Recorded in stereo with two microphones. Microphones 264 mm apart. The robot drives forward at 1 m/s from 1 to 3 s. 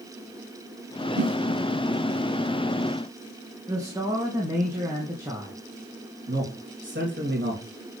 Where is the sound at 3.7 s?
10° right (ahead or behind), 2 m.